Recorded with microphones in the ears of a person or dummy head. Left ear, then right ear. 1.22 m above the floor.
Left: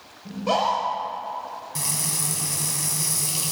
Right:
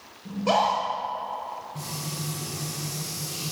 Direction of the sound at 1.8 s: 60° left (ahead or behind).